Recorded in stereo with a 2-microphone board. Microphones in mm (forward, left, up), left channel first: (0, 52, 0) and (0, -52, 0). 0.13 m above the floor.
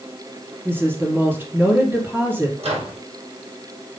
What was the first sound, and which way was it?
A woman speaking, 20° right (ahead or behind).